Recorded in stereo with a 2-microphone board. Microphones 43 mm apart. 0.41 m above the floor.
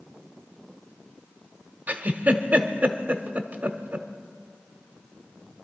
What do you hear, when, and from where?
1.9 s a giggle: 35° right (ahead or behind), 1.0 m